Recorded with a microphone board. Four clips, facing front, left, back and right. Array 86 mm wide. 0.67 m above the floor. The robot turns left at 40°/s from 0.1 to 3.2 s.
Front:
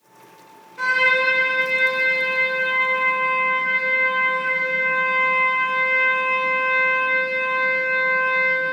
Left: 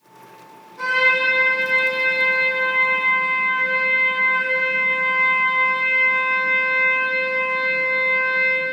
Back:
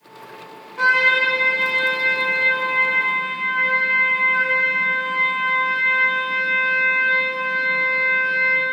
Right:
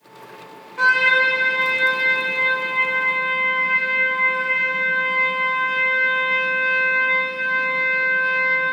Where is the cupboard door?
No cupboard door in this recording.